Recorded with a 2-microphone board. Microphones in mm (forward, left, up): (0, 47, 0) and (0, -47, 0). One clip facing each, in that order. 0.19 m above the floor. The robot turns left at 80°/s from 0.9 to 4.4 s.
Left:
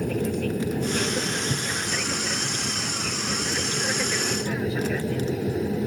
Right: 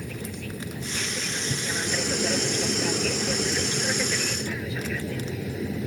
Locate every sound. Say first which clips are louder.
0.0 s an aircraft: left 10 dB; 60° left; by 5.9 s 140° left